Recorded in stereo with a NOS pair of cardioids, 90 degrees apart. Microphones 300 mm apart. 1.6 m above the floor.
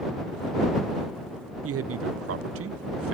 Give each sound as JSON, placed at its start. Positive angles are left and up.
{"t": 1.6, "sound": "a man speaking", "azimuth_deg": -50}